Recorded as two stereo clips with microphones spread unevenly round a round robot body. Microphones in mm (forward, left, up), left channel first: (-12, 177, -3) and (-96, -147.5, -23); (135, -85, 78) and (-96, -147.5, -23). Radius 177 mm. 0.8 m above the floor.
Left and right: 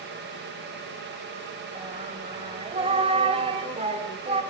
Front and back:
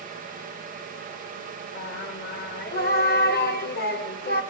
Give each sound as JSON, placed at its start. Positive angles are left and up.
{"t": 1.8, "sound": "singing", "azimuth_deg": -30, "distance_m": 1.4}